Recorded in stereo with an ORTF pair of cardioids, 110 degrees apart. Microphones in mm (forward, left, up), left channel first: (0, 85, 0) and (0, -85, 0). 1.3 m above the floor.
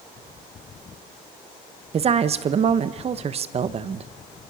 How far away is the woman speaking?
About 1.2 m.